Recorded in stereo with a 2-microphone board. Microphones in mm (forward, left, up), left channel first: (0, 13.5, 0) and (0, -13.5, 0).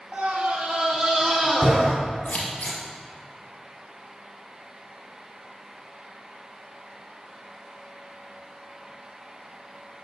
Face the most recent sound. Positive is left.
turn(degrees=60)  # may be behind; listen again after turning